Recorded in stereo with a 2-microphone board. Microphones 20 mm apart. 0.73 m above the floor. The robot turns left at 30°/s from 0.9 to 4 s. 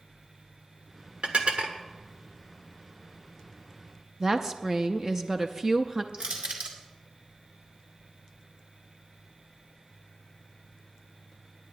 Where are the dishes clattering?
65° right (ahead or behind), 1.3 m; by 1.8 s 80° right, 1.3 m.